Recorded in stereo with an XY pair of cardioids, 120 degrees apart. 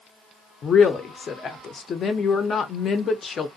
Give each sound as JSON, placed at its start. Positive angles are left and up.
{"t": 0.6, "sound": "a woman speaking", "azimuth_deg": 40, "distance_m": 0.6}